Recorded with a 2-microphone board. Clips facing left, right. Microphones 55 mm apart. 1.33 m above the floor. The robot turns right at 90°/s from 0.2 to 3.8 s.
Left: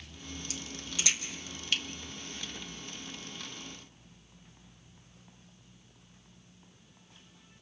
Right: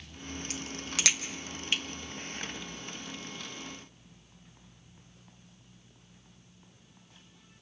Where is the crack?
50° right (ahead or behind), 1.4 m; by 1.8 s 10° right (ahead or behind), 1.4 m.